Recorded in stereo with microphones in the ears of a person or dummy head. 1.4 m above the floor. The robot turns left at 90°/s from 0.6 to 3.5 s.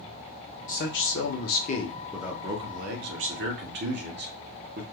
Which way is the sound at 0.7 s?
140° left.